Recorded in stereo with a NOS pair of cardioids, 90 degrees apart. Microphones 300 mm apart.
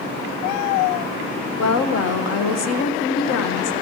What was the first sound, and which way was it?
A woman speaking, 60° left.